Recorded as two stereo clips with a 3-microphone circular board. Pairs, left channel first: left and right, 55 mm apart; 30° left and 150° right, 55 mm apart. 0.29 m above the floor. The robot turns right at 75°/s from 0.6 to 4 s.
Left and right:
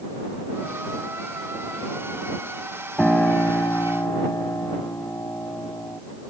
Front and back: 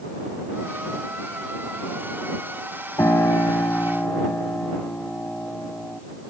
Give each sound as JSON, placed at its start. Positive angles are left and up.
{"t": 3.0, "sound": "a piano", "azimuth_deg": 15}